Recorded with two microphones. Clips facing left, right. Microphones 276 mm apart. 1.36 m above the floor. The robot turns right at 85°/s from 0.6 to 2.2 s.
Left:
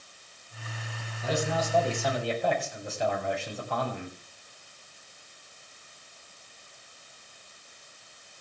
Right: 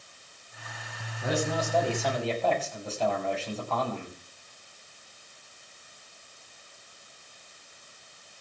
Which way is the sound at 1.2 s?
70° right.